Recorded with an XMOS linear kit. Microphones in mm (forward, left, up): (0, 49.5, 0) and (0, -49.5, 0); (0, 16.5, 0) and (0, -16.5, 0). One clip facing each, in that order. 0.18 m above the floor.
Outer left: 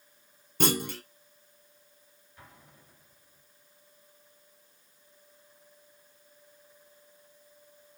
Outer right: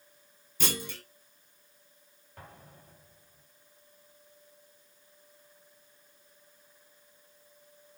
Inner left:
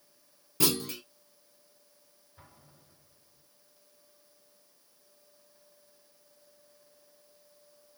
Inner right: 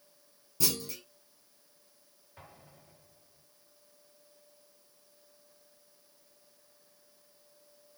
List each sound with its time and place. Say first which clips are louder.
0.6 s a clunk: outer left 8 dB, inner left 5 dB; 60° left (ahead or behind), 1.3 m
2.4 s an explosion: outer right 4 dB, inner right 4 dB; 70° right (ahead or behind), 3.5 m